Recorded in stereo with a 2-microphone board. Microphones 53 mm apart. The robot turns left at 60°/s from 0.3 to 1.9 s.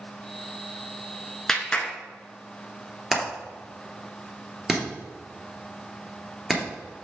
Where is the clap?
5° left (ahead or behind), 1.4 m; by 1.9 s 25° left (ahead or behind), 1.4 m.